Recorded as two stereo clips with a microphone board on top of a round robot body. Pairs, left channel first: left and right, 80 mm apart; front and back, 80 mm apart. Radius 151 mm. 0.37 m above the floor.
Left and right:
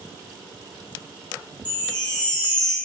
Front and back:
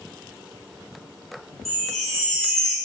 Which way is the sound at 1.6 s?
85° left.